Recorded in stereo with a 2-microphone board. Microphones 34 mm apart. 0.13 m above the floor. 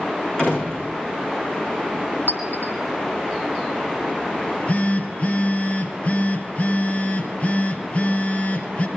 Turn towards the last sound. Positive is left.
turn(degrees=45)  # may be behind; listen again after turning